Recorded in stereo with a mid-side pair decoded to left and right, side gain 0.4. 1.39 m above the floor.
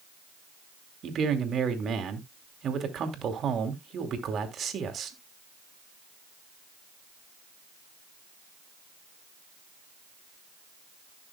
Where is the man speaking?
60° right, 2.5 m.